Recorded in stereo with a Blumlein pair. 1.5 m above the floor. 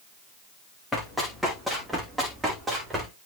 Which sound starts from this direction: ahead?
Running footsteps, at 0.9 s.